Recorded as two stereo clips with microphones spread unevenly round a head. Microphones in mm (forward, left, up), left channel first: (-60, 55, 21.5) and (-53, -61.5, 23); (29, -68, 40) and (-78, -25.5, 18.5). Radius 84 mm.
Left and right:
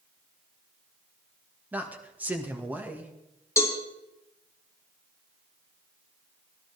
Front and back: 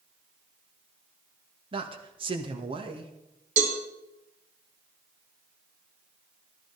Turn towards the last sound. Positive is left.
turn(degrees=160)